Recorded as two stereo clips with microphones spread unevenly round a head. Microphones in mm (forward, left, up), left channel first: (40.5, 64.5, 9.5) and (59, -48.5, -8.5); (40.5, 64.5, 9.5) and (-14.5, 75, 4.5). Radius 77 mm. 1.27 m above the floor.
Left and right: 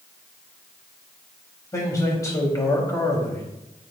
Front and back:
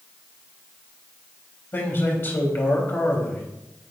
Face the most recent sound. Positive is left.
turn(degrees=35)